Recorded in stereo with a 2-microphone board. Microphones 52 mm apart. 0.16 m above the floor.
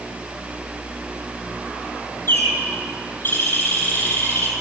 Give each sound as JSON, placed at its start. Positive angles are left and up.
{"t": 2.3, "sound": "a bird", "side_deg": 45, "distance_m": 4.0}